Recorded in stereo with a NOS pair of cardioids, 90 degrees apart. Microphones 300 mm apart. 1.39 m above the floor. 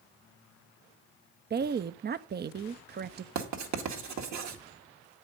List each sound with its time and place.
1.5 s a woman speaking: 35° right, 0.6 m
3.4 s writing: 65° right, 1.9 m